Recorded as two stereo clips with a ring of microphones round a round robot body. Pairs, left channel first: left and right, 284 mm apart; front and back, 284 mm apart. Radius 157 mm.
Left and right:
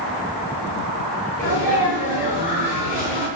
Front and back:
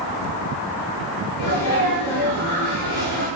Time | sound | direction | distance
1.4 | a sneeze | 45° left | 9.5 m